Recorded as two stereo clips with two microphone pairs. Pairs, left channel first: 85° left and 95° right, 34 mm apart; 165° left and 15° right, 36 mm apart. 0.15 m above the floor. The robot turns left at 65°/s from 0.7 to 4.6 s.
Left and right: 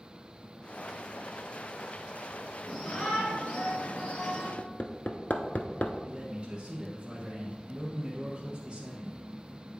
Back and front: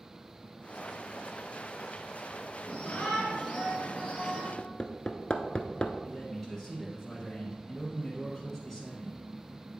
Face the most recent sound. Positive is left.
turn(degrees=-105)